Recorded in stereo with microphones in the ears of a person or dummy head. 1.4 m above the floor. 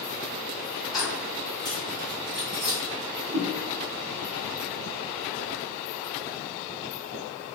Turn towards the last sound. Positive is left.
turn(degrees=-55)  # may be behind; listen again after turning